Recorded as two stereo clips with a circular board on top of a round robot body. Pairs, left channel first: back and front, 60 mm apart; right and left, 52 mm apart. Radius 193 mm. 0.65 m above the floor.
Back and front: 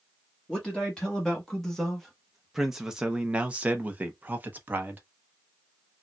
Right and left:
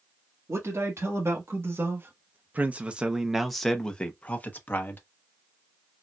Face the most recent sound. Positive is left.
turn(degrees=-55)